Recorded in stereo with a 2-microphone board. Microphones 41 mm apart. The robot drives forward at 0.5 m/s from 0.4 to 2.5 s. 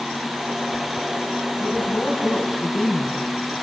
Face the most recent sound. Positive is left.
turn(degrees=40)  # may be behind; listen again after turning